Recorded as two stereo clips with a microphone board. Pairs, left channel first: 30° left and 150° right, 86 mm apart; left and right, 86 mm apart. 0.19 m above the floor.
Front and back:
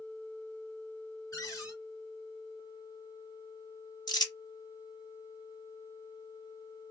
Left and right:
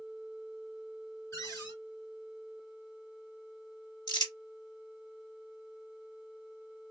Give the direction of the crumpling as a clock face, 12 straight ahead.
10 o'clock.